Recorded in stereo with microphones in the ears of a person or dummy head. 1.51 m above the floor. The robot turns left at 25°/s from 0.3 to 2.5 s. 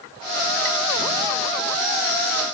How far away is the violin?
I don't hear a violin.